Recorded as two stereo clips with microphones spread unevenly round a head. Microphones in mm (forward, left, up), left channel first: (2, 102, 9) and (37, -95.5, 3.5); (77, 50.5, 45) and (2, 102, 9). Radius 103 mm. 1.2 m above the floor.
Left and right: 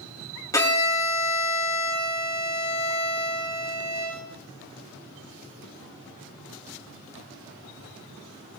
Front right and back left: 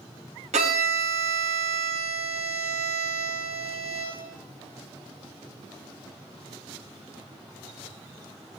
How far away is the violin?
About 2 m.